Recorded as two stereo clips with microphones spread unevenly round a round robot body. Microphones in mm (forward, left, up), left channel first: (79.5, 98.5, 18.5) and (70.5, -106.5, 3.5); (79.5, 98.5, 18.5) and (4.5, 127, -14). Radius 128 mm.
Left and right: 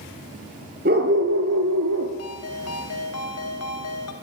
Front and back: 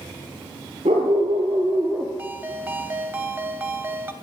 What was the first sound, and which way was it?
A dog barking, 150° right.